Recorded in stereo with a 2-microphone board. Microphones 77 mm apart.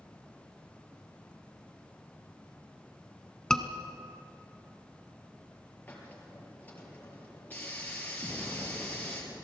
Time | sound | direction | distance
3.5 | a scream | 10° left (ahead or behind) | 1.4 m
5.9 | a hiss | 20° left (ahead or behind) | 4 m
8.2 | an explosion | 5° right (ahead or behind) | 3 m